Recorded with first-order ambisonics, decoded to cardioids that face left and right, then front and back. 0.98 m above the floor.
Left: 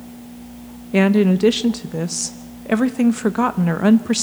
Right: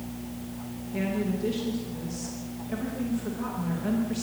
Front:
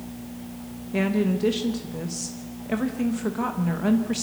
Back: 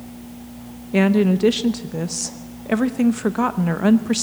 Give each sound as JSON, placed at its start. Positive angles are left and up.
{"t": 0.9, "sound": "a woman speaking", "azimuth_deg": 115, "distance_m": 0.7}